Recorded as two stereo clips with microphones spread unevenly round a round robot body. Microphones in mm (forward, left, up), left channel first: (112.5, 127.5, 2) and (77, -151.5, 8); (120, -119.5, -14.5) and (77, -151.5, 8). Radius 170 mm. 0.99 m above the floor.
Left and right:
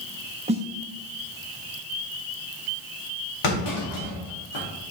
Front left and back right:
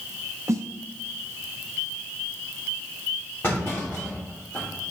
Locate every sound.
0.5 s a snare drum: 150° right, 0.5 m
3.4 s a clunk: 110° left, 2.5 m